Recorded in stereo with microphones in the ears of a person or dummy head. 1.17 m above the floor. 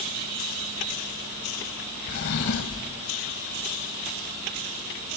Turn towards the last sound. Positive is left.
turn(degrees=60)  # may be behind; listen again after turning